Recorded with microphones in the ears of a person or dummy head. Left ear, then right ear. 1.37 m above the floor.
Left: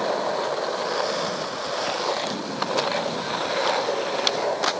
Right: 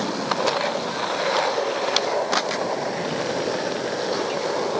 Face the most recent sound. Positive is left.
No sound to turn to.